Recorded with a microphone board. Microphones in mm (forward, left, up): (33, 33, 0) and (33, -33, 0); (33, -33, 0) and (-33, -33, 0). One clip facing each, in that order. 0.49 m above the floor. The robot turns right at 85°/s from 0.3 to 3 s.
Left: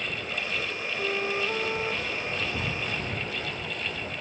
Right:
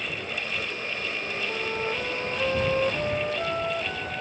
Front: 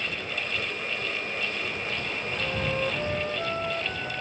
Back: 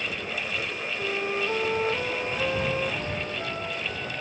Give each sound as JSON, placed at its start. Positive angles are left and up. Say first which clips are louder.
{"t": 1.0, "sound": "a flute", "louder": "left 7 dB, back 4 dB", "azimuth_deg": 115}